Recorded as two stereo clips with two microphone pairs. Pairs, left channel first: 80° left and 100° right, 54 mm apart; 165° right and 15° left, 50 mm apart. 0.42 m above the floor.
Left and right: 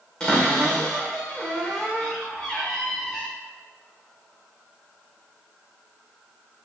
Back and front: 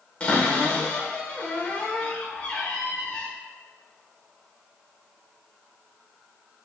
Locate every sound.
0.2 s a cupboard door: 145° left, 0.8 m